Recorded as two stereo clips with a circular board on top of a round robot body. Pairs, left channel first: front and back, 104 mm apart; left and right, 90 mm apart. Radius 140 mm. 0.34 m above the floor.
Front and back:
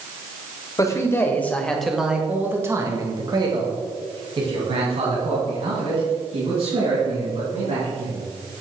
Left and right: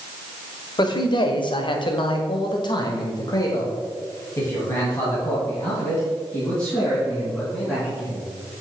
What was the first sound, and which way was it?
A man speaking, 55° left.